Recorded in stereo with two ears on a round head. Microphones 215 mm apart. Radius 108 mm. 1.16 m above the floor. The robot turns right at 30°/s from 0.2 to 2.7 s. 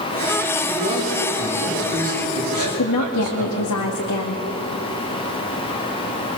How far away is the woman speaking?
About 2.5 m.